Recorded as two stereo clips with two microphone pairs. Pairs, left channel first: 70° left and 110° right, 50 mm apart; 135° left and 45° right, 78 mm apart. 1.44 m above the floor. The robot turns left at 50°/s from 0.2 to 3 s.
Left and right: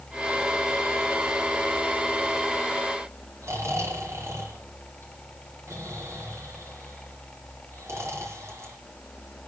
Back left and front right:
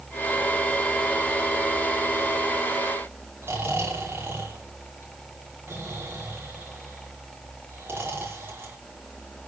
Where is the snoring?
110° right, 5 m.